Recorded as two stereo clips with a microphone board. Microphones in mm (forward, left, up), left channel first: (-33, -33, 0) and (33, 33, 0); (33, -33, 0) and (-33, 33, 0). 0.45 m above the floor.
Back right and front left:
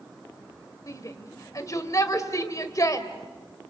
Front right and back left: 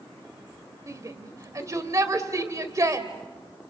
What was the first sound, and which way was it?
A shout, straight behind.